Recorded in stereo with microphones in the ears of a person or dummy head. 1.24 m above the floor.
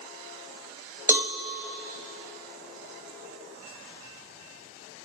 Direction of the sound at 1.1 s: 5° right (ahead or behind).